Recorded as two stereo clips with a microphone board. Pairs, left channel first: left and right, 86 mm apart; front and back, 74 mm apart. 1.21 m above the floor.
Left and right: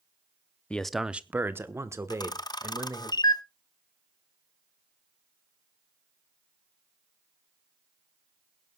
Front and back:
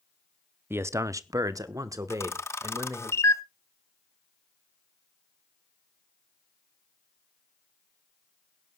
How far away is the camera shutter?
About 0.6 m.